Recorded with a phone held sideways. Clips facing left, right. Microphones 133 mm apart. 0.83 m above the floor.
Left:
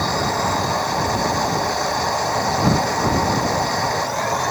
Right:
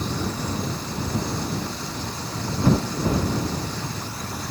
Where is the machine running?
75° left (ahead or behind).